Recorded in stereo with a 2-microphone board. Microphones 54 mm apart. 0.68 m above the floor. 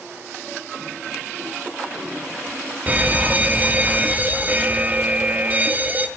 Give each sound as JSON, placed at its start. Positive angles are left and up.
{"t": 2.9, "sound": "an alarm", "side_deg": -30, "distance_m": 0.6}